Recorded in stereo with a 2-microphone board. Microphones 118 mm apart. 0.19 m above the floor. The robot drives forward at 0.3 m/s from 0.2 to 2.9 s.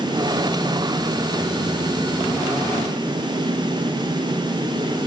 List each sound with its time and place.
Only background noise.